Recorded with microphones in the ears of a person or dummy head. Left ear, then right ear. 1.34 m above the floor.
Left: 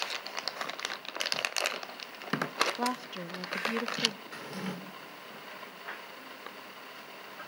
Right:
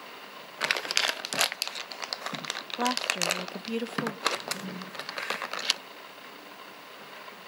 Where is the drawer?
65° left (ahead or behind), 3 m.